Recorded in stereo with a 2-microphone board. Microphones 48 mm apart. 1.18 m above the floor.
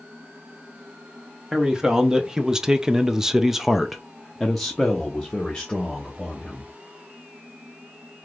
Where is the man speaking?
15° right (ahead or behind), 1.1 m; by 6.7 s 10° left (ahead or behind), 1.8 m.